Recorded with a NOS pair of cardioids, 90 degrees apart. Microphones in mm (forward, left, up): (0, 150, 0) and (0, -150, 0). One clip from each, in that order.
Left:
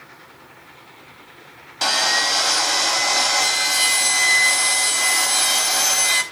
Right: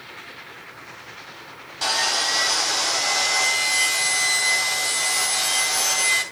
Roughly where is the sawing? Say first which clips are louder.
Left 3 dB; ahead left.